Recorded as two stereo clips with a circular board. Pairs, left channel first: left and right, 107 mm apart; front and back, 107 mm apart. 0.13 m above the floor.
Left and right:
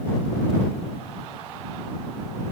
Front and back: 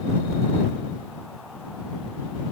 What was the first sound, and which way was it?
Only background noise.